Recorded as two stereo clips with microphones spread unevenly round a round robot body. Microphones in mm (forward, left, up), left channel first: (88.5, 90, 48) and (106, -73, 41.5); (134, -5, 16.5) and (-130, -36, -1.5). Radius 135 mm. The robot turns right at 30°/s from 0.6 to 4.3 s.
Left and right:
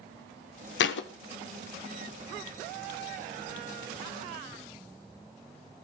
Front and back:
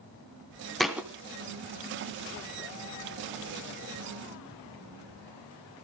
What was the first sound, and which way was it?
A thud, 95° left.